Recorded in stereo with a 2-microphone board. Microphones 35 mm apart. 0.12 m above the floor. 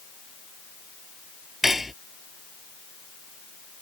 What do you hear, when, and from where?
1.6 s cutlery clinking: 10° right (ahead or behind)